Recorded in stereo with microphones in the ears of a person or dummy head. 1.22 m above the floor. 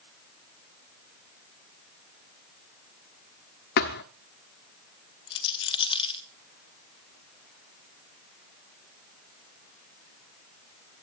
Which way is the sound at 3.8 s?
50° left (ahead or behind).